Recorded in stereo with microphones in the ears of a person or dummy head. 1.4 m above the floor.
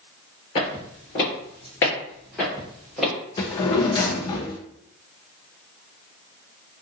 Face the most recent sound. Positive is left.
turn(degrees=25)  # may be behind; listen again after turning